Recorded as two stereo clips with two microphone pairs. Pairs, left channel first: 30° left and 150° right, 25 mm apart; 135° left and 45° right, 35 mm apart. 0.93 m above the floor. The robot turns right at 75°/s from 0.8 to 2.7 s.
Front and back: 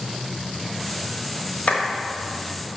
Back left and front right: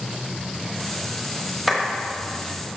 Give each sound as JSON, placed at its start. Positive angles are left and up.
{"t": 1.7, "sound": "a clap", "azimuth_deg": 35, "distance_m": 1.5}